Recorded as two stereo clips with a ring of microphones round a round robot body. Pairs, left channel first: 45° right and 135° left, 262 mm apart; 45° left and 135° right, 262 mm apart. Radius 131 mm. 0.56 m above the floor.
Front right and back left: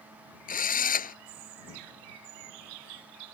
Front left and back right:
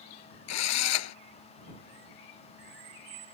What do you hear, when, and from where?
0.5 s a drill: 15° left